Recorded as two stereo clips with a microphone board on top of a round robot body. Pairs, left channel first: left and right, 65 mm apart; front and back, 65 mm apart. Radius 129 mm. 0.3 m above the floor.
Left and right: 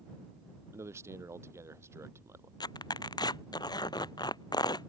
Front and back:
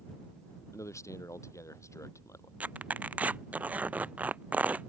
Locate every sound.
0.7 s a man speaking: 40° right
2.6 s tearing paper: 110° left